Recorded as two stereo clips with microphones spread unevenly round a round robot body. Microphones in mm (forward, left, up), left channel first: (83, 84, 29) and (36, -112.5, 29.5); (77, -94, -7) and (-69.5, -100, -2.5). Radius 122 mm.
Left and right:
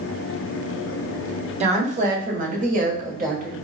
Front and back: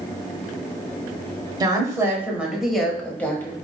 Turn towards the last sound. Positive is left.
turn(degrees=-70)